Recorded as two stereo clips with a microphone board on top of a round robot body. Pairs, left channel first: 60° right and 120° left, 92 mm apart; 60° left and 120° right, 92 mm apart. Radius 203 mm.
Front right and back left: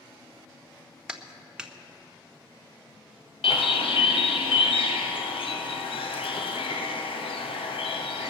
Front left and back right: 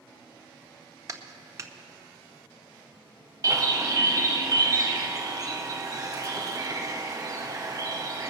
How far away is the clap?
About 1.4 m.